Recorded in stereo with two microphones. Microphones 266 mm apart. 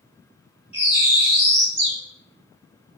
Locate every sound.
0.7 s a bird: 20° left (ahead or behind), 1.9 m